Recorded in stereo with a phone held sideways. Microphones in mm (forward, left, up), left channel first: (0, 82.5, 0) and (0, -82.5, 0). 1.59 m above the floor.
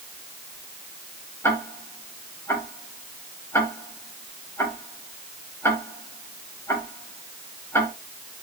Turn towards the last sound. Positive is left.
turn(degrees=15)  # may be behind; listen again after turning